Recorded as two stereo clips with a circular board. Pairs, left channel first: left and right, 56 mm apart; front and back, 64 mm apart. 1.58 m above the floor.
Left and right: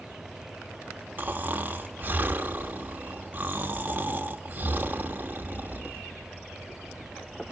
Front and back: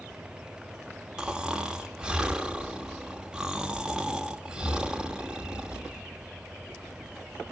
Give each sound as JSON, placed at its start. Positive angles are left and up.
{"t": 1.2, "sound": "snoring", "azimuth_deg": -110, "distance_m": 1.1}